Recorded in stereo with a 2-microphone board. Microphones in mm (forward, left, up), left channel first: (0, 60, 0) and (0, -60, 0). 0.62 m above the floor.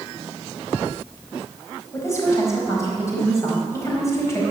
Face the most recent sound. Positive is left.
turn(degrees=25)  # may be behind; listen again after turning